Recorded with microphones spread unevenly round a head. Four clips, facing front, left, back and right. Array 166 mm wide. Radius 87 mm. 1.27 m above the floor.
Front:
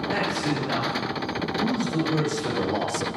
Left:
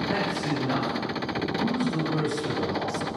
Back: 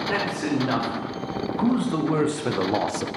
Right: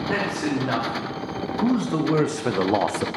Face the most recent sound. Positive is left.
turn(degrees=-90)